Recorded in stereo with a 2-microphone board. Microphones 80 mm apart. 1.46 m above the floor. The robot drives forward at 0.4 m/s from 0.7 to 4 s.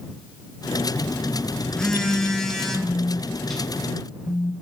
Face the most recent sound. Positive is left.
turn(degrees=20)  # may be behind; listen again after turning